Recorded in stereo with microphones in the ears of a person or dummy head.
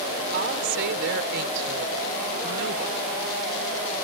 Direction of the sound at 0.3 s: 60° right (ahead or behind).